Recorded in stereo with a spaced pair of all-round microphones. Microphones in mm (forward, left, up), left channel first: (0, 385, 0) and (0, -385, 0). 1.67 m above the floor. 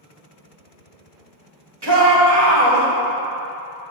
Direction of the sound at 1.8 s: 30° right (ahead or behind).